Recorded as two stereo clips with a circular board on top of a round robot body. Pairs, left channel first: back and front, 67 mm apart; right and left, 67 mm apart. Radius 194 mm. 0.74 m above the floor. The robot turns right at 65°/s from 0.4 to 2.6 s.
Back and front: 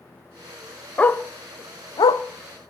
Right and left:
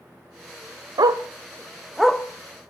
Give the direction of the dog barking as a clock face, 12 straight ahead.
8 o'clock.